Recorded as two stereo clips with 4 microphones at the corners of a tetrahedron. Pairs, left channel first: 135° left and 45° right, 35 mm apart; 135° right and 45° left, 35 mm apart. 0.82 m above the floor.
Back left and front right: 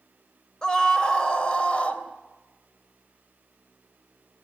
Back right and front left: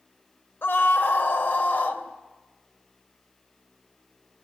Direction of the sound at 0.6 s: 150° right.